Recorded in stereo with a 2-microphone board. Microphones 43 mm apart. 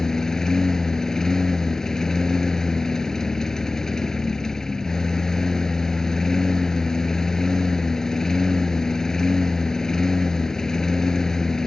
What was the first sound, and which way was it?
A lawn mower, 10° left (ahead or behind).